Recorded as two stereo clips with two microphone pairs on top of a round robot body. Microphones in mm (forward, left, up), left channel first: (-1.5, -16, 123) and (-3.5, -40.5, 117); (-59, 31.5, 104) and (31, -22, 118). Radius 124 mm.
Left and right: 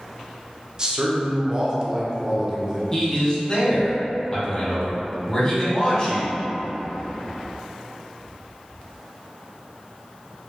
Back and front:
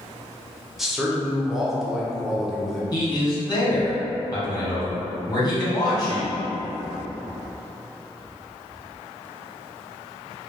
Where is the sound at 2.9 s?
160° left, 1.9 m.